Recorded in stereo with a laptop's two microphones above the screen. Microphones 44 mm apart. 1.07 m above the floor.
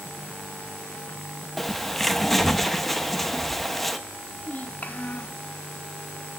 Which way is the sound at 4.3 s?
35° left (ahead or behind).